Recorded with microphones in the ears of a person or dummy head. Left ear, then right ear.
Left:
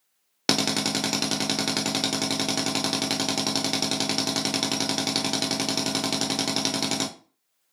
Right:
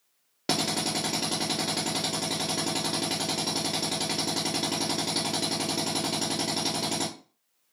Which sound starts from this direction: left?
A drill, at 0.5 s.